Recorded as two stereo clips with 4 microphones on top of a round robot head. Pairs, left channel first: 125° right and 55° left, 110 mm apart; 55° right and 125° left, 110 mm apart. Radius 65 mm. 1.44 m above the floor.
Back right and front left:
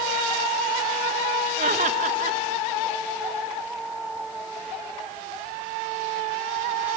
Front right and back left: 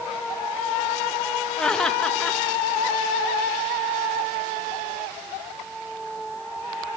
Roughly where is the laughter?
Ahead left.